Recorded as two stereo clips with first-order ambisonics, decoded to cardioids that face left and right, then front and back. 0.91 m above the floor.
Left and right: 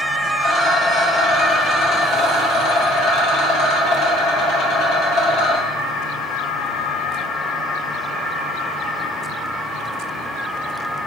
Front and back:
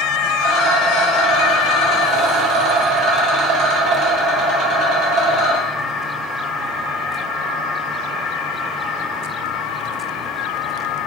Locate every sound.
0.4 s a rattle: 145° left, 1.7 m